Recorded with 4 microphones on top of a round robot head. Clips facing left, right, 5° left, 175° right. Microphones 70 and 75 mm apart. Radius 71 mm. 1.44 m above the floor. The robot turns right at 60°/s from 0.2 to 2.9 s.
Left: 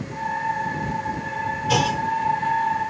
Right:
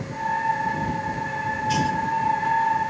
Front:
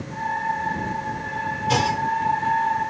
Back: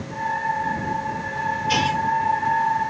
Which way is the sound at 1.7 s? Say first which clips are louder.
Left 2 dB, front 1 dB; 65° left.